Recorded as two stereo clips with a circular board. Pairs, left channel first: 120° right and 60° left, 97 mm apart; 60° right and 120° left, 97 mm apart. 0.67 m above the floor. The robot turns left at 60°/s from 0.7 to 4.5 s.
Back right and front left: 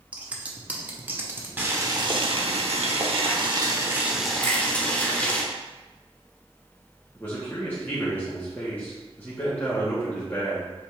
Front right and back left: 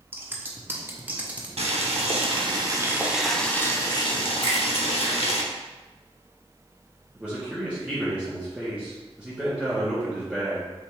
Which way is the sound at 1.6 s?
130° left.